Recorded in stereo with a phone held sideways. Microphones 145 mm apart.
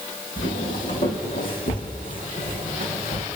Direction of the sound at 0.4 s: 70° left (ahead or behind).